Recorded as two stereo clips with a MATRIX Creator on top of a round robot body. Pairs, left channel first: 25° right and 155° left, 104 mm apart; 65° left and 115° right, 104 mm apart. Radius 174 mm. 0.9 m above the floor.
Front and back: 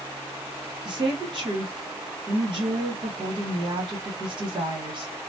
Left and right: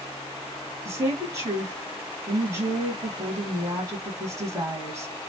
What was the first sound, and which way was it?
A woman speaking, 170° right.